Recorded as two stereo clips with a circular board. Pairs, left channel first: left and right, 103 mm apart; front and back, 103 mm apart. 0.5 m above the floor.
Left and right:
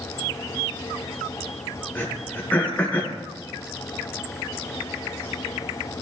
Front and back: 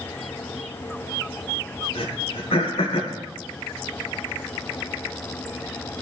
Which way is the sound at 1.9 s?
15° left.